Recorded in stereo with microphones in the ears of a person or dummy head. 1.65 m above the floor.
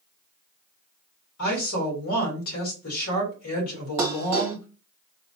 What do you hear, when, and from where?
1.4 s a woman speaking: 80° left, 1.8 m
4.0 s dishes clattering: 15° right (ahead or behind), 1.3 m